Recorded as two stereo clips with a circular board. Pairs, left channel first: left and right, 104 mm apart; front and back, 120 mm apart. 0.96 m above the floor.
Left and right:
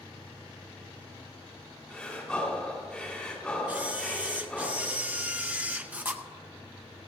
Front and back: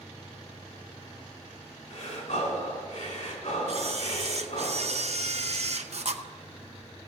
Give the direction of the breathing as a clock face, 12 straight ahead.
12 o'clock.